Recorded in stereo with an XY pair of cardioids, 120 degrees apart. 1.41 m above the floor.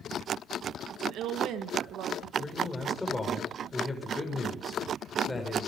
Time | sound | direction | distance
0.9 | a woman speaking | 70° right | 1.9 m
2.4 | a man speaking | 10° left | 6 m